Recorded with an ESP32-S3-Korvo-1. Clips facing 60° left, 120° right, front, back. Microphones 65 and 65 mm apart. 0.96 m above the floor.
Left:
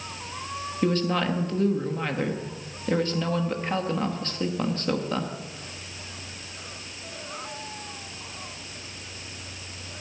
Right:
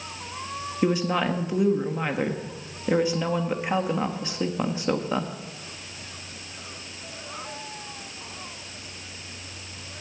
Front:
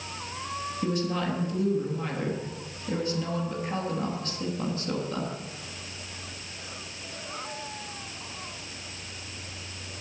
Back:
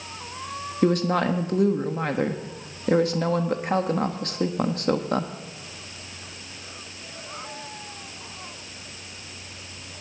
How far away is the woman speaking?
About 1.3 m.